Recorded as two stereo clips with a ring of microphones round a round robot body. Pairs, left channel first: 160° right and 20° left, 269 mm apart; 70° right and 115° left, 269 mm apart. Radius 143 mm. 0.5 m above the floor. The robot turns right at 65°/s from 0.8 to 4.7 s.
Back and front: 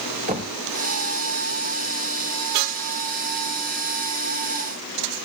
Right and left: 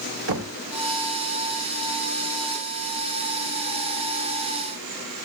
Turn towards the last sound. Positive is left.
turn(degrees=-25)